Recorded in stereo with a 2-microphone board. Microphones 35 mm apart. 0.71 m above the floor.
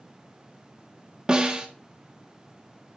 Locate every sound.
1.3 s a snare drum: 20° right (ahead or behind), 1.0 m